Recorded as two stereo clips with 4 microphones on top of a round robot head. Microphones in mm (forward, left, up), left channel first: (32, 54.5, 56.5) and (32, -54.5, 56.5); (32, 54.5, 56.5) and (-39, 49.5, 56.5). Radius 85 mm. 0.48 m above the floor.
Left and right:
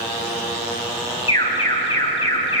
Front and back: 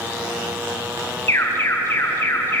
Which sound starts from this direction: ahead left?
An alarm, at 1.3 s.